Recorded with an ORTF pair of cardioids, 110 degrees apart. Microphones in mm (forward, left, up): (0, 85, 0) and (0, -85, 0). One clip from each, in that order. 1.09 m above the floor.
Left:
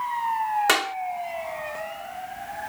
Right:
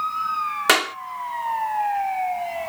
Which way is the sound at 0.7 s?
25° right.